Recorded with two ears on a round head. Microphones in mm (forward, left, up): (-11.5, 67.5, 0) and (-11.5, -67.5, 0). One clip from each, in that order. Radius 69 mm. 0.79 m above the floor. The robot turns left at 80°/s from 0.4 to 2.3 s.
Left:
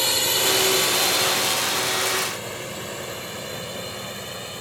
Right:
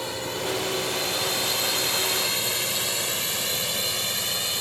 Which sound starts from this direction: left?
A drone, at 0.0 s.